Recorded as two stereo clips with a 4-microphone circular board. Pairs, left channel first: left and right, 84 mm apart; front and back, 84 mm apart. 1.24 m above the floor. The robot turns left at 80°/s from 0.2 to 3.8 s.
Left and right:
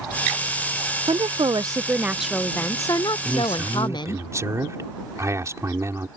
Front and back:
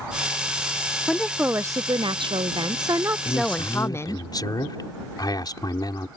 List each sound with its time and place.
1.1 s a woman speaking: 80° right; by 4.2 s 60° left
3.2 s a man speaking: 5° left; by 6.1 s 40° right